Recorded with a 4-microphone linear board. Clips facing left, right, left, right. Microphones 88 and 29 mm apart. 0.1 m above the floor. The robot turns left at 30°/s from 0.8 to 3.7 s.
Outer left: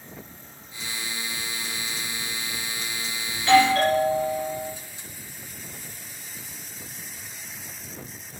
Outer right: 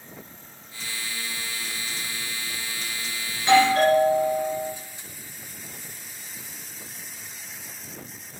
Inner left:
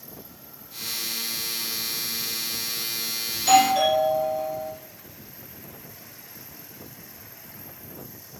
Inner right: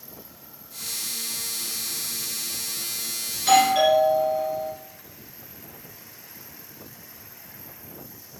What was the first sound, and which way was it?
A doorbell, 20° right (ahead or behind).